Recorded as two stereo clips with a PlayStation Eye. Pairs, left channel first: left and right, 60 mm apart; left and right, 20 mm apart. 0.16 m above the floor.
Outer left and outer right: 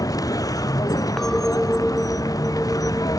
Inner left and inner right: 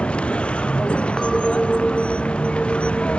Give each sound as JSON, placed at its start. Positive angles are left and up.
{"t": 0.0, "sound": "a vehicle", "side_deg": 85}
{"t": 1.2, "sound": "a clink", "side_deg": 5}